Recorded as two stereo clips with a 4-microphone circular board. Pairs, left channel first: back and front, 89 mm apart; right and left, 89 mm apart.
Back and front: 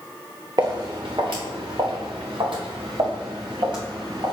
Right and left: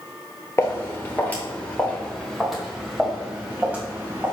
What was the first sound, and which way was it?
Footsteps, 35° right.